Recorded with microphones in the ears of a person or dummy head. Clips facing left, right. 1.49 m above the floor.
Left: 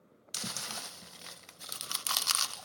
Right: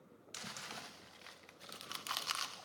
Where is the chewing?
70° left (ahead or behind), 0.5 m.